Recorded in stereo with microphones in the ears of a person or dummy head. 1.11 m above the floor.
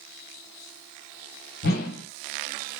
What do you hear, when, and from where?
1.6 s a whoosh: 50° left (ahead or behind), 1.2 m